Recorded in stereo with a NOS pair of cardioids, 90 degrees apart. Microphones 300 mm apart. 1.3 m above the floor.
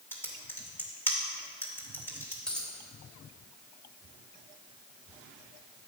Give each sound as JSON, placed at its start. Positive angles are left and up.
{"t": 0.1, "sound": "typing on a keyboard", "azimuth_deg": 5, "distance_m": 2.0}
{"t": 2.5, "sound": "a dropped coin", "azimuth_deg": 5, "distance_m": 3.0}